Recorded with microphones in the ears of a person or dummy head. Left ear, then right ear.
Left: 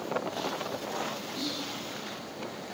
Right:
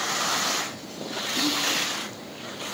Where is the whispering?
20° right (ahead or behind), 0.7 m.